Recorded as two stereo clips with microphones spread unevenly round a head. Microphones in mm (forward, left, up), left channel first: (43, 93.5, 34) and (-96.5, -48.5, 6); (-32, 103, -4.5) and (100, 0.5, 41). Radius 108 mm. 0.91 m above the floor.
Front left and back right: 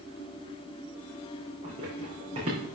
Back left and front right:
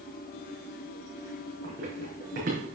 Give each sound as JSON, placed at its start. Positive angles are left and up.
{"t": 1.6, "sound": "running footsteps", "azimuth_deg": -70, "distance_m": 3.0}